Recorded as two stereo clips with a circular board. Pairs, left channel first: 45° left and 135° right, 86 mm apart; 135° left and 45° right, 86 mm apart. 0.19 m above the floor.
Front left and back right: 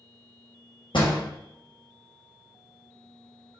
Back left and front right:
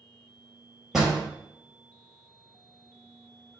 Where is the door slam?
40° left, 3.5 m.